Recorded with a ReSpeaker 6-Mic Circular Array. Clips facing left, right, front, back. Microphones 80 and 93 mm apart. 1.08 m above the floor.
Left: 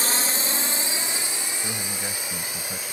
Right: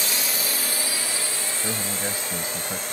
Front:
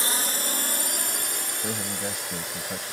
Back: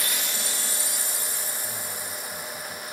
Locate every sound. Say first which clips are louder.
0.0 s a drone: left 2 dB, front 3 dB; 50° left; by 2.9 s 10° left
1.6 s a man speaking: right 3 dB, front 5 dB; 20° right